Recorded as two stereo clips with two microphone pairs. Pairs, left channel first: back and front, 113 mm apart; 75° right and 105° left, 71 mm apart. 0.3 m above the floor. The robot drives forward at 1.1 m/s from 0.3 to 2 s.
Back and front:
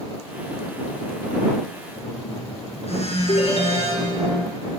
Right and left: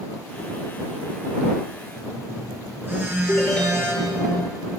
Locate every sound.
1.9 s a phone buzzing: 160° left, 5 m
3.3 s a ringtone: 150° right, 3.5 m